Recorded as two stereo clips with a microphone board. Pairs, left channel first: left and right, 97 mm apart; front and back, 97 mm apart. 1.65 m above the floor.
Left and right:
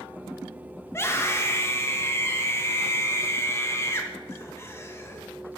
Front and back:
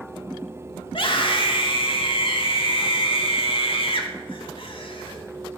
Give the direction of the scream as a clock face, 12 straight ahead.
11 o'clock.